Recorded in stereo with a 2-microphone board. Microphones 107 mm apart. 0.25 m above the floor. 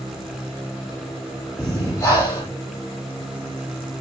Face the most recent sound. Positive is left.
turn(degrees=30)  # may be behind; listen again after turning